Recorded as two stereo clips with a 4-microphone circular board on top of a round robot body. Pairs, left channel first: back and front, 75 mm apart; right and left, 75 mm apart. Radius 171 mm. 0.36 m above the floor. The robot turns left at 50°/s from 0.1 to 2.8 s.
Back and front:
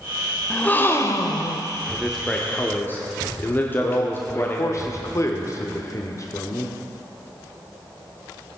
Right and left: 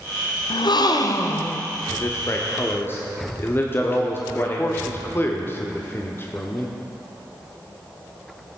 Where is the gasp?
100° right, 0.7 m; by 1.7 s 160° right, 0.7 m.